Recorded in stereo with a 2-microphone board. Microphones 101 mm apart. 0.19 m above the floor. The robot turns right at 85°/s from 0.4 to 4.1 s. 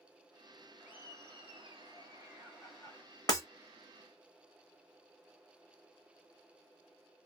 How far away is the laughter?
About 2 m.